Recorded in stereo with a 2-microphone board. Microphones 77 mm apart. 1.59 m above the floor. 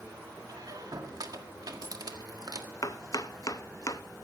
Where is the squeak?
55° right (ahead or behind), 1.6 m.